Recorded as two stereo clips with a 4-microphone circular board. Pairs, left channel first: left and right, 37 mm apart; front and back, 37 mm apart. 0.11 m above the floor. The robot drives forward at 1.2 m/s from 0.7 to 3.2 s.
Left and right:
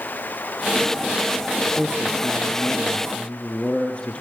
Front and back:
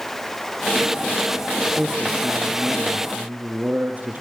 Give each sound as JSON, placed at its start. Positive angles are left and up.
{"t": 1.8, "sound": "a man speaking", "azimuth_deg": 105, "distance_m": 2.5}